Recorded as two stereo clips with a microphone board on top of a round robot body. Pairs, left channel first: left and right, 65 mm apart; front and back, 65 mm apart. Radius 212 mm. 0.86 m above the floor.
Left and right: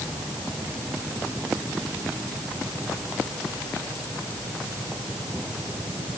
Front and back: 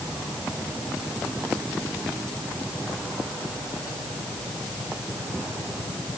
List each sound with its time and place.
Only background noise.